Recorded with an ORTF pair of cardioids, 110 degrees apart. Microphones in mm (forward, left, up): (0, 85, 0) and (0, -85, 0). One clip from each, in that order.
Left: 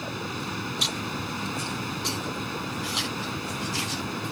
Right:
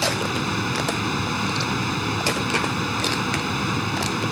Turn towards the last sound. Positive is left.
turn(degrees=-45)